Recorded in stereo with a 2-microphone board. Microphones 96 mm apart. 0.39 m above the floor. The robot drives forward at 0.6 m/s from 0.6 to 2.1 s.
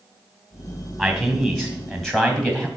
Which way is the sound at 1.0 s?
5° left (ahead or behind).